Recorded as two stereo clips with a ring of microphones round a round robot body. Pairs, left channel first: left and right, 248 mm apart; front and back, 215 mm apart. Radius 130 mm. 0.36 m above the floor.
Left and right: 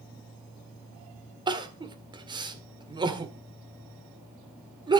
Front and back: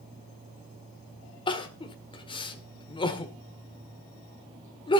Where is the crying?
40° right, 1.6 m.